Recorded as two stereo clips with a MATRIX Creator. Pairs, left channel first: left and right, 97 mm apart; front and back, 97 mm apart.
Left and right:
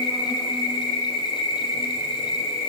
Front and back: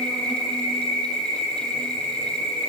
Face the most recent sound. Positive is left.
turn(degrees=80)